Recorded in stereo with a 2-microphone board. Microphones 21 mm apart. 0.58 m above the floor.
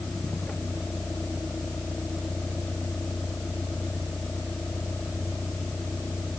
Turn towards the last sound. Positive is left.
turn(degrees=80)